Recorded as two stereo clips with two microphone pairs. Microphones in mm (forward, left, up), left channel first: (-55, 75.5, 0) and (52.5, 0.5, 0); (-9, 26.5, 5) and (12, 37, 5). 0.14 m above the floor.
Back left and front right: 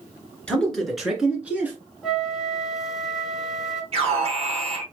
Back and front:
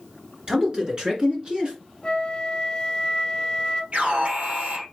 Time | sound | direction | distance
0.5 | a man speaking | 65° left | 2.5 m
2.0 | a flute | 125° right | 0.7 m
3.9 | an alarm | 5° left | 2.5 m